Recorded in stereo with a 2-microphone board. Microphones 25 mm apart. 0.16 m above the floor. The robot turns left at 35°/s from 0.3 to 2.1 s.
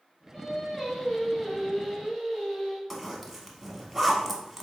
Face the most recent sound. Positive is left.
turn(degrees=0)  # may be behind; listen again after turning